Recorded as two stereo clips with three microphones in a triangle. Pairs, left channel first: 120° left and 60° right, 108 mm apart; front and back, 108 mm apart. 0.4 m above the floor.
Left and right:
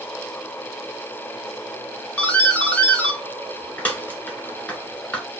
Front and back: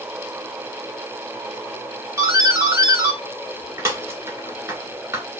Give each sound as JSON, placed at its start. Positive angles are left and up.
{"t": 2.2, "sound": "a doorbell", "azimuth_deg": 180, "distance_m": 1.4}